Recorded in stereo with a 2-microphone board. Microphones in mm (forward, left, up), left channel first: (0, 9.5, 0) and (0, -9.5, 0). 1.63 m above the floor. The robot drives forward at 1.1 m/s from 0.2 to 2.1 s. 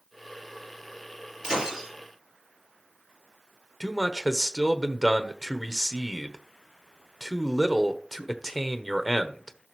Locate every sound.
1.4 s breaking glass: 40° right (ahead or behind), 7 m; by 1.9 s 45° right (ahead or behind), 7 m
3.8 s a man speaking: 10° right (ahead or behind), 1.0 m